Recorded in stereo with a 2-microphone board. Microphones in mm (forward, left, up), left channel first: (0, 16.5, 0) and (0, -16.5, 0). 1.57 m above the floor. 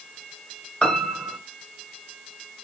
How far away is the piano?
About 0.8 m.